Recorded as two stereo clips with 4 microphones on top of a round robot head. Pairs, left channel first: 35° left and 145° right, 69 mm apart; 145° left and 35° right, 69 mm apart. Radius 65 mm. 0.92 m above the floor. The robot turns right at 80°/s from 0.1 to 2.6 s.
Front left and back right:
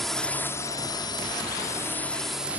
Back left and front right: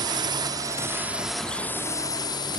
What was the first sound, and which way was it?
A drone, 50° right.